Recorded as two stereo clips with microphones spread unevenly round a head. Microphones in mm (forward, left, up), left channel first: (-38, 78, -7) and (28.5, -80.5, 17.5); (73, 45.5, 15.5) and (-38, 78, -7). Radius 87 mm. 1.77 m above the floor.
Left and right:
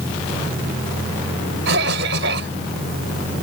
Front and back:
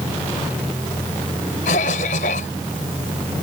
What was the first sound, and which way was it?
A cough, 45° right.